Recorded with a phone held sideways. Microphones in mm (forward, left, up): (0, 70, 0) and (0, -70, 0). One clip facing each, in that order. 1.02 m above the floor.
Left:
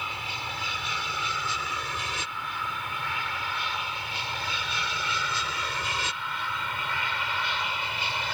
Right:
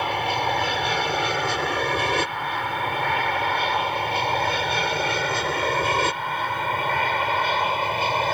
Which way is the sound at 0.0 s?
65° right (ahead or behind).